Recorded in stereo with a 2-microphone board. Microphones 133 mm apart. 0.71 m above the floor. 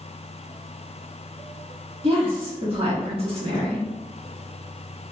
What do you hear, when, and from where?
2.0 s a woman speaking: 45° right (ahead or behind), 1.5 m